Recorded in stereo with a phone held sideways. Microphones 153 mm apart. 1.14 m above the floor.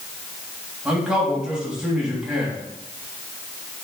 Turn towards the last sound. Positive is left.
turn(degrees=-5)  # may be behind; listen again after turning